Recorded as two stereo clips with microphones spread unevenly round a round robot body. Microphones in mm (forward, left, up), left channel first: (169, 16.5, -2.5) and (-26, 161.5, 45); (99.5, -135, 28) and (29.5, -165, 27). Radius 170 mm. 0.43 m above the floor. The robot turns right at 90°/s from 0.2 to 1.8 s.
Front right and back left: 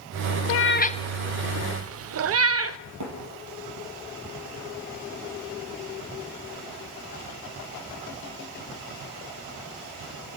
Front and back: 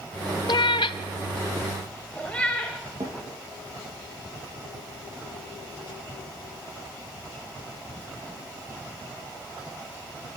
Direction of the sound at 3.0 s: 145° left.